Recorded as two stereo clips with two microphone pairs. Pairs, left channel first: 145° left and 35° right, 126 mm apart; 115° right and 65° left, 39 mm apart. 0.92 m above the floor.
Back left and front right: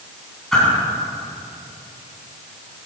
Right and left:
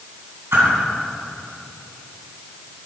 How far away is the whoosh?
About 3.5 m.